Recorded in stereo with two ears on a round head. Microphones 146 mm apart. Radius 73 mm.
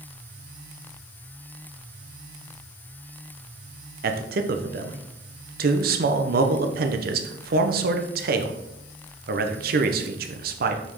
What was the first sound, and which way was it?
A man speaking, 60° right (ahead or behind).